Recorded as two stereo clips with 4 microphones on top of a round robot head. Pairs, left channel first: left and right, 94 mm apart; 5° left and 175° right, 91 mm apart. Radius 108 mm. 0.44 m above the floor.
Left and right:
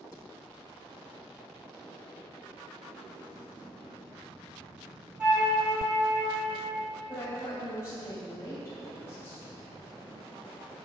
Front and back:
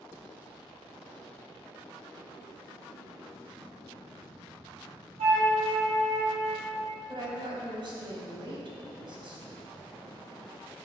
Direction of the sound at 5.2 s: 170° right.